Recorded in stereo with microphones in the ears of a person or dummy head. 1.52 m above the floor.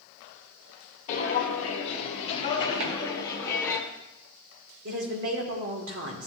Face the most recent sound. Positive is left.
turn(degrees=-65)  # may be behind; listen again after turning